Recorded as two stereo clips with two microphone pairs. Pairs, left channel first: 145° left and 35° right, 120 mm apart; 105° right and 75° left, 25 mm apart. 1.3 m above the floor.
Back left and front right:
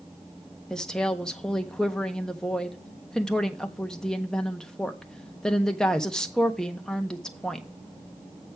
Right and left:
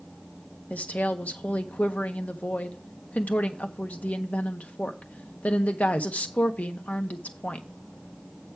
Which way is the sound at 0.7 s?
130° right.